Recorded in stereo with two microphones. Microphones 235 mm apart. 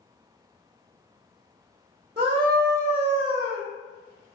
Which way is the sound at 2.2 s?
20° right (ahead or behind).